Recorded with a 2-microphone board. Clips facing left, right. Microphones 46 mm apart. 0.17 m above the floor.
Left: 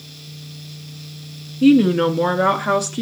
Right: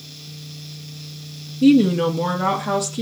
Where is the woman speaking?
35° left (ahead or behind), 1.5 m; by 3.0 s 45° left (ahead or behind), 2 m.